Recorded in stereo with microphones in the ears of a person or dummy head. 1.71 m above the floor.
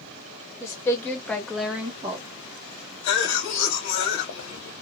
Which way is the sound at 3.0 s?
80° left.